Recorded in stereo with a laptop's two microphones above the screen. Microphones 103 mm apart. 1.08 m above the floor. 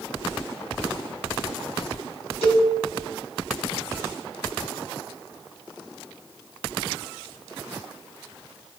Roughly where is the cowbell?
Left.